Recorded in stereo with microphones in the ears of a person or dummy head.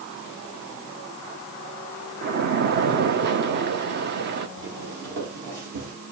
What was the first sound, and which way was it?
A splash, 60° right (ahead or behind).